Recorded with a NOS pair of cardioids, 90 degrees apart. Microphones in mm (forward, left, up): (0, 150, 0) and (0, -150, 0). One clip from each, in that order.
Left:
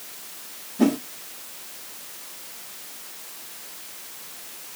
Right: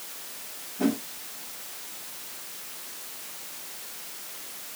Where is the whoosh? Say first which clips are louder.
Left 5 dB; 50° left, 3.5 m.